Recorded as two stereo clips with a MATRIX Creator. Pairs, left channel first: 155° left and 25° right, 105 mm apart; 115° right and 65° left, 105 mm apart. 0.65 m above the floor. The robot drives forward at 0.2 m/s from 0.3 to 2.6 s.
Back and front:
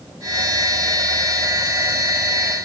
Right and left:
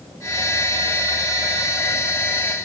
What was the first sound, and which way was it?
Only background noise.